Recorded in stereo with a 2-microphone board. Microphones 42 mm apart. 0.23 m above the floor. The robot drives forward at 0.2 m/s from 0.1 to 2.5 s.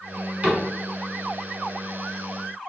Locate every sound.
0.4 s a cupboard door: 35° right (ahead or behind), 1.3 m